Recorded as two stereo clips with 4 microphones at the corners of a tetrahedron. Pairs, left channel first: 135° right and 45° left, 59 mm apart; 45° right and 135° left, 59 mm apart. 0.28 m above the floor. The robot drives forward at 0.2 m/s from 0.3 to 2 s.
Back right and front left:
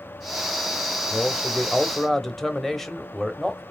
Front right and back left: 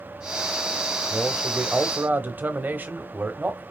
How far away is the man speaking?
About 0.9 m.